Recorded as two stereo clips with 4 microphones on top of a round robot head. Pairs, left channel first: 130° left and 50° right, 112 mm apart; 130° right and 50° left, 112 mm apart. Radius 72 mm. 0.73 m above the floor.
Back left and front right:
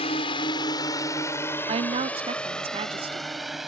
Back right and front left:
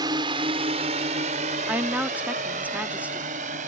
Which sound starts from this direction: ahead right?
A woman speaking, at 1.7 s.